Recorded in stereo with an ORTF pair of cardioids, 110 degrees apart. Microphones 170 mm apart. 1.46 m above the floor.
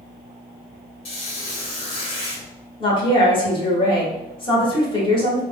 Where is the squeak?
60° left, 1.7 m.